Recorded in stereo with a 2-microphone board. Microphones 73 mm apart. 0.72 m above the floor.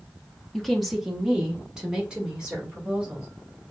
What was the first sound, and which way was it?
A woman speaking, 5° left (ahead or behind).